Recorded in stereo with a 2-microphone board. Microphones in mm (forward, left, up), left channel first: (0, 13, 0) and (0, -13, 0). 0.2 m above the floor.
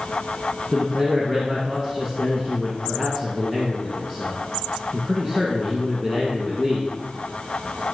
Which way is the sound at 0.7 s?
25° right (ahead or behind).